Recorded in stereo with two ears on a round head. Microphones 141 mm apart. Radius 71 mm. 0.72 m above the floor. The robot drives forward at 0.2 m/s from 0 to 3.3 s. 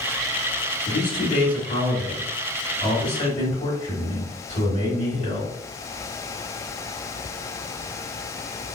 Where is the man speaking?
50° left (ahead or behind), 1.9 m; by 5.5 s 45° left (ahead or behind), 2 m.